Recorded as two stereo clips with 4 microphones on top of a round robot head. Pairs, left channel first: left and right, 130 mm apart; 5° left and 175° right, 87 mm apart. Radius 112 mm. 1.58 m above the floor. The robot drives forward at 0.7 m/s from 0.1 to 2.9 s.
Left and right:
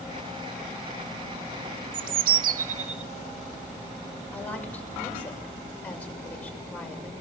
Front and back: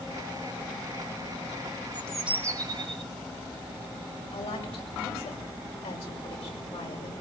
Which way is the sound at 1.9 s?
65° right.